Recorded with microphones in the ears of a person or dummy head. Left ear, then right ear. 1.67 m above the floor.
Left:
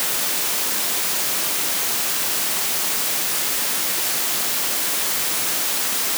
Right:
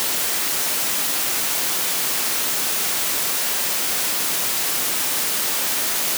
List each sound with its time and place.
Only background noise.